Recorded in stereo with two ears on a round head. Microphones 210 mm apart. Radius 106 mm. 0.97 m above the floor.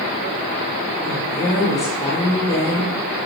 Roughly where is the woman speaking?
Centre.